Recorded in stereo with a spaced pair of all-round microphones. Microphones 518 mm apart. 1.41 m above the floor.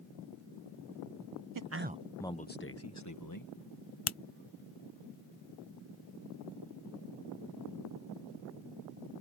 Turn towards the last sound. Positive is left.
turn(degrees=70)  # may be behind; listen again after turning